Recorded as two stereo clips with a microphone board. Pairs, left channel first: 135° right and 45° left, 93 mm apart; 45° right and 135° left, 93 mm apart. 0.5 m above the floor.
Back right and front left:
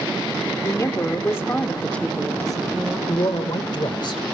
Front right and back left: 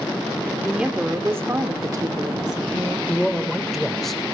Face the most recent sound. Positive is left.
turn(degrees=-135)